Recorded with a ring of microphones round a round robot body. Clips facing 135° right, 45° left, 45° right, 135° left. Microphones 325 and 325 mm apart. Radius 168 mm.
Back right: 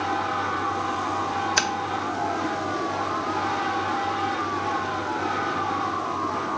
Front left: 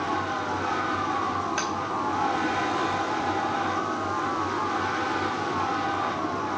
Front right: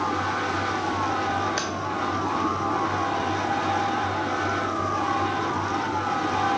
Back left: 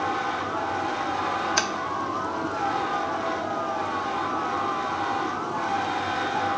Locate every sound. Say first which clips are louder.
1.6 s tapping: back right 2 dB, even; 160° right, 0.8 m